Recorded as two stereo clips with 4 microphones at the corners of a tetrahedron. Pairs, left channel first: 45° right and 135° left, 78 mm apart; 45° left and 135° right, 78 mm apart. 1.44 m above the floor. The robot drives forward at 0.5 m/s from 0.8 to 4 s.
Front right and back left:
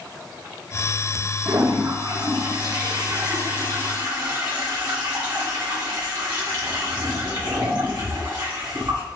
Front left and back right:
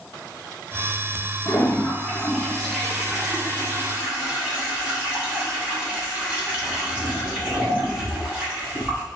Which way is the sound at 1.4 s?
95° left.